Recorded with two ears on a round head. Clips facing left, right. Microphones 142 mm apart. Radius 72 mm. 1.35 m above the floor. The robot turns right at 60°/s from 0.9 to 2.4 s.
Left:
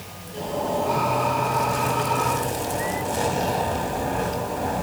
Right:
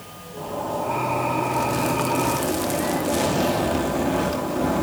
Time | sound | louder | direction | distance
0.4 | a zipper | left 2 dB | 170° left | 2 m